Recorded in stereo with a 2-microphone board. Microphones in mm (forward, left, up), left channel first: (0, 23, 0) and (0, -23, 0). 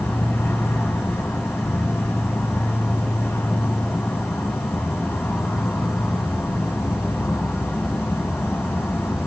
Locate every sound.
0.0 s an insect: 60° left (ahead or behind), 1.0 m